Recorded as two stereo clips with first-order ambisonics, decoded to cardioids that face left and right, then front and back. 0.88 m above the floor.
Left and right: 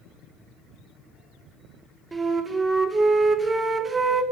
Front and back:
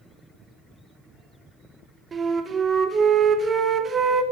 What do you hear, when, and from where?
2.1 s a flute: 150° right, 0.5 m